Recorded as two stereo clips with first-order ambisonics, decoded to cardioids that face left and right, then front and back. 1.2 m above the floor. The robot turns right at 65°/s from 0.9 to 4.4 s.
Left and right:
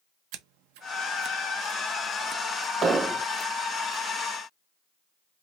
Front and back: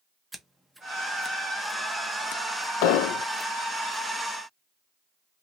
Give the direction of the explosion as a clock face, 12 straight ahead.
1 o'clock.